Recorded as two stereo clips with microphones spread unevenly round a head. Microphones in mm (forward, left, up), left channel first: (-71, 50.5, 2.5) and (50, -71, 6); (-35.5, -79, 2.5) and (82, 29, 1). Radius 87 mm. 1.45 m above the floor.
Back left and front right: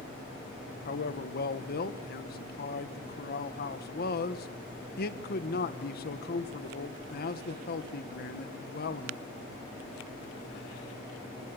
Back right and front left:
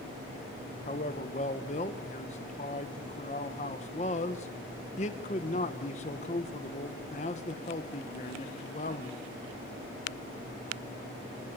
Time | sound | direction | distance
0.8 | a man speaking | 170° left | 1.6 m